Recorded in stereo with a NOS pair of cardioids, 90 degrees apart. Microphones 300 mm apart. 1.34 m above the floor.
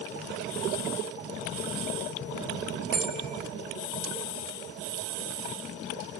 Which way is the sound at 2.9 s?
65° right.